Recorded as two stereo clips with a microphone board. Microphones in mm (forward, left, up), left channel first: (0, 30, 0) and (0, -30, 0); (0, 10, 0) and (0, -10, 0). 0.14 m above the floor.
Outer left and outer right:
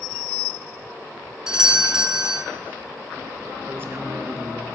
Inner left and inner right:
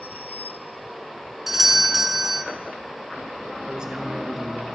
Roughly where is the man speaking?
Right.